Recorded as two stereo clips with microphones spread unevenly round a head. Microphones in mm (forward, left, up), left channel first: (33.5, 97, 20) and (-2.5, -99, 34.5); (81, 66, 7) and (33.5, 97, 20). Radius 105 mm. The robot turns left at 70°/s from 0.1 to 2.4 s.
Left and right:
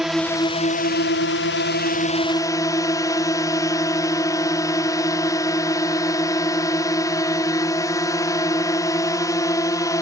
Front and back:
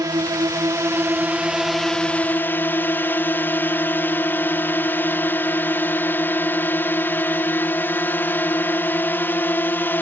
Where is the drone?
170° left; by 10.0 s 10° left.